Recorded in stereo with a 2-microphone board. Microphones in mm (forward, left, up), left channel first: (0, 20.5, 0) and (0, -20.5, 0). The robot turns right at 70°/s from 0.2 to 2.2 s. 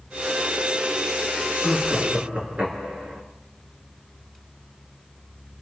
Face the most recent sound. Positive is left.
turn(degrees=-150)